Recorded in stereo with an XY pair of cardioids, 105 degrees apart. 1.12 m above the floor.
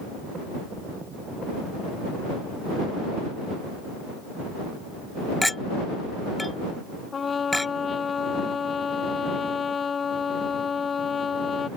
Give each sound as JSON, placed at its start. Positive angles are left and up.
{"t": 5.4, "sound": "a clink", "azimuth_deg": 5}
{"t": 7.1, "sound": "a trumpet", "azimuth_deg": 35}